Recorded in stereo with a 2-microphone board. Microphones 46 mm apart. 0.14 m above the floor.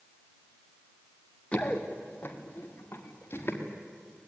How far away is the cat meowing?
I don't hear a cat meowing.